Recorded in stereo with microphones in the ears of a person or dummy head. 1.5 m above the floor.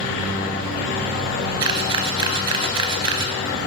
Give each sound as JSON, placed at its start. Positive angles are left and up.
{"t": 1.6, "sound": "a camera shutter", "side_deg": -20, "distance_m": 0.6}